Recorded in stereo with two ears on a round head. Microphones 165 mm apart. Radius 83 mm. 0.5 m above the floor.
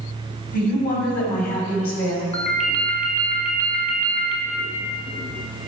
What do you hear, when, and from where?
0.5 s a woman speaking: 50° left (ahead or behind), 3 m
2.3 s a ringtone: 40° left (ahead or behind), 1.6 m